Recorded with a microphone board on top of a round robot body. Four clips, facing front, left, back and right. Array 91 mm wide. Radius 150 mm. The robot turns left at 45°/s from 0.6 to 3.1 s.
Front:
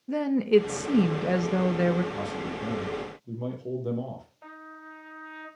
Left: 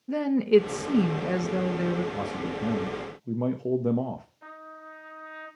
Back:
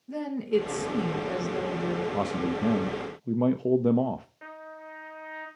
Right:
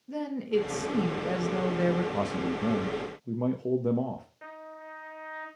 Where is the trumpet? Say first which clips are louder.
Right 1 dB, back 2 dB; 150° right, 5.5 m.